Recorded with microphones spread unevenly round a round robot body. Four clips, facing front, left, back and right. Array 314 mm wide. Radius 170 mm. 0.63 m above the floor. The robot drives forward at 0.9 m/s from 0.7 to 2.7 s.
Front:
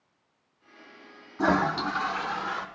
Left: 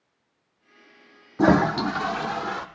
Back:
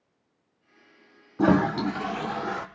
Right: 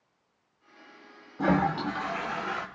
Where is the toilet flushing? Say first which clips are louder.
Left 7 dB, back 3 dB; 105° left, 0.9 m; by 2.7 s 150° left, 1.6 m.